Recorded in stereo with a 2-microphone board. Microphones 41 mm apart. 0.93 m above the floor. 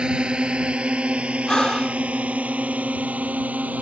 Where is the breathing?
20° left (ahead or behind).